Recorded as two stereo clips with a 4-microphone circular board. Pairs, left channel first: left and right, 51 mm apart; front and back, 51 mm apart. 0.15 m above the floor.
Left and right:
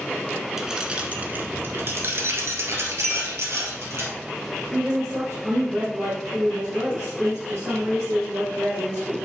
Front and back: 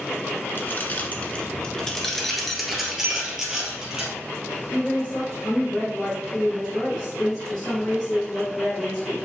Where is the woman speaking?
75° right, 3 m.